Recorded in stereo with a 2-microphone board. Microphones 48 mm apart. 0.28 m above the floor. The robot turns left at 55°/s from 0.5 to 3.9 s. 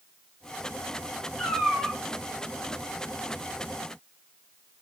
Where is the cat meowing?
Straight ahead, 4.5 m; by 2.0 s 35° right, 4.5 m.